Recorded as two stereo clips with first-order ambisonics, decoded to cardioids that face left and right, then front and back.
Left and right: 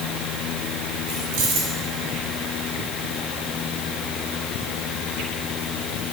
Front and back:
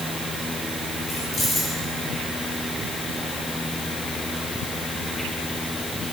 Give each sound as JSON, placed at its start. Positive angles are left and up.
{"t": 1.1, "sound": "keys jangling", "azimuth_deg": -70, "distance_m": 5.0}